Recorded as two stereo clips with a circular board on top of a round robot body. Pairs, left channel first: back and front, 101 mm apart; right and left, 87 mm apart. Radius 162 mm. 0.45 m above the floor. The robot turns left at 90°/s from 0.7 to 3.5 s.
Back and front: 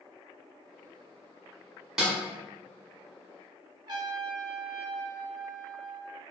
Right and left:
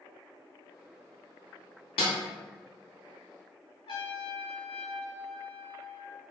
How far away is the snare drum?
About 0.7 m.